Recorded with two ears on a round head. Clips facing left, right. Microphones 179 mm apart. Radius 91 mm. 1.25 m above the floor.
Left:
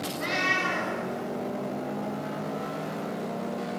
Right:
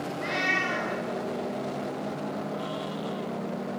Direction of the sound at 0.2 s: 50° left (ahead or behind).